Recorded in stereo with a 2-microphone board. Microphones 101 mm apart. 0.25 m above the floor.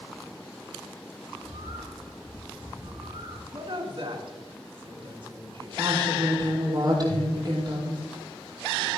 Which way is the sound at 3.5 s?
60° right (ahead or behind).